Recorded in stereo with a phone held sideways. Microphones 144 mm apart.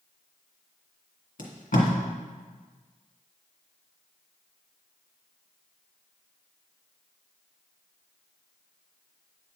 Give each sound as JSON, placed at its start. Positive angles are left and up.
{"t": 1.4, "sound": "tape being pulled", "side_deg": 65, "distance_m": 1.8}